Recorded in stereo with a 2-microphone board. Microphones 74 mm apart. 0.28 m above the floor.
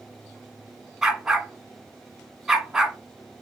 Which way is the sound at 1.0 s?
5° right (ahead or behind).